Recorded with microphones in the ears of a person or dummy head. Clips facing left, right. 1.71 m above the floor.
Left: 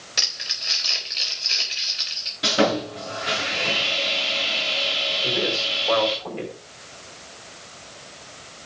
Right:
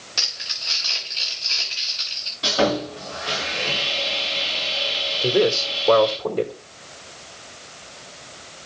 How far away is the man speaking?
About 2.5 m.